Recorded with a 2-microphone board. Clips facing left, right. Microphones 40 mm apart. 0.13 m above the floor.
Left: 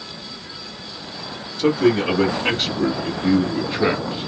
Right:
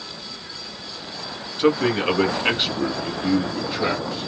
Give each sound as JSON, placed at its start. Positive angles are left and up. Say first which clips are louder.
{"t": 1.6, "sound": "a man speaking", "louder": "left 2 dB", "side_deg": -30, "distance_m": 1.6}